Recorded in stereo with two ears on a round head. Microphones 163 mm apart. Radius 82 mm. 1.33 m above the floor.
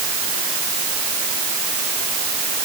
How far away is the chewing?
I don't hear chewing.